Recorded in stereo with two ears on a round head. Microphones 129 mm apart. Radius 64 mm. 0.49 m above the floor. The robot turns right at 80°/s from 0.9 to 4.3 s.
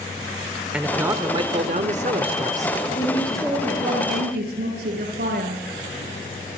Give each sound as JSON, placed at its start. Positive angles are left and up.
{"t": 0.7, "sound": "a man speaking", "azimuth_deg": -170, "distance_m": 1.5}
{"t": 3.0, "sound": "a woman speaking", "azimuth_deg": 145, "distance_m": 10.0}